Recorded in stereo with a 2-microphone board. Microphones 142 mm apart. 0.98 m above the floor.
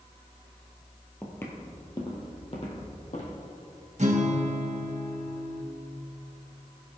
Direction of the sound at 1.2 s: 10° left (ahead or behind).